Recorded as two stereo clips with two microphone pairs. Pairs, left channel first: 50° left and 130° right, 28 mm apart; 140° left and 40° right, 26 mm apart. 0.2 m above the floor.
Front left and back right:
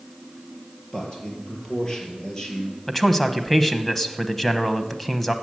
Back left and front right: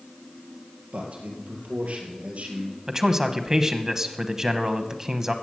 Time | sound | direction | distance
0.9 | a man speaking | 15° right | 4 m
2.9 | a man speaking | 25° right | 1.0 m